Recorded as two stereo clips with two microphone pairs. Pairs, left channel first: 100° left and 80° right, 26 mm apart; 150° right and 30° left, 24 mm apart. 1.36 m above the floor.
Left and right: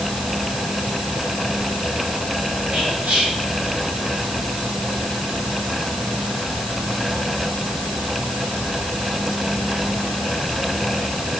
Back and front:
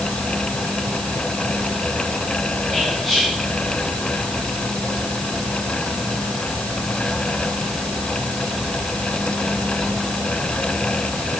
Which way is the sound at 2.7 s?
70° right.